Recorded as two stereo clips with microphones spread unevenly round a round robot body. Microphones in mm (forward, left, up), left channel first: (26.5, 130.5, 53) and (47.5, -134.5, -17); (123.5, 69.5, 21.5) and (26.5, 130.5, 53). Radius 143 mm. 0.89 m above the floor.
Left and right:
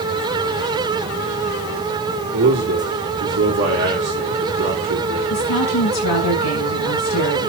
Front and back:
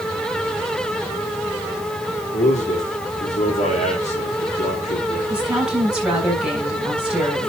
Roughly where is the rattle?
No rattle in this recording.